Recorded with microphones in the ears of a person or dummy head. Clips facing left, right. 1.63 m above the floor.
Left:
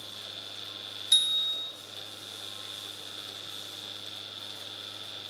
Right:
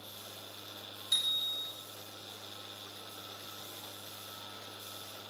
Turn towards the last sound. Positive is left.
turn(degrees=35)  # may be behind; listen again after turning